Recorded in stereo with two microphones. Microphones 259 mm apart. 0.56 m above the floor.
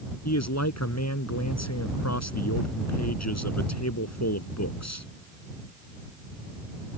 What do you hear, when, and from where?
0.2 s a man speaking: 75° left (ahead or behind)